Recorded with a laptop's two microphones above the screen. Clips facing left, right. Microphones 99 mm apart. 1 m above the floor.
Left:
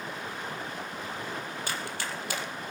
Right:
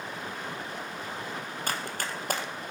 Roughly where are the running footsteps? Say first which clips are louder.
Right 4 dB; right.